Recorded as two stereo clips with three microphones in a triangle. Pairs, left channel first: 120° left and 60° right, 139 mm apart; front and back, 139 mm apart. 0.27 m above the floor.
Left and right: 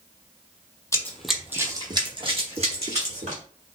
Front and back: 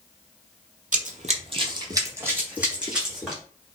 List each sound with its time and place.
0.9 s running footsteps: 175° right, 0.5 m; by 3.4 s 90° right, 1.5 m